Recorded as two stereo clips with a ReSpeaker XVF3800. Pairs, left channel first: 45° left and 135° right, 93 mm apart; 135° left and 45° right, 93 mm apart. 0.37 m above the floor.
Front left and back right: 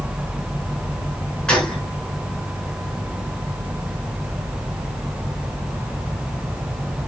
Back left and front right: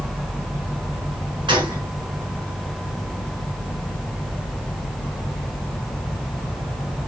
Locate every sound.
1.5 s a gunshot: 35° right, 2.5 m